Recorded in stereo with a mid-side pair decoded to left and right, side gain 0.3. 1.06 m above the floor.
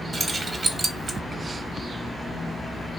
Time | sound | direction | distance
0.1 | keys jangling | 50° right | 0.8 m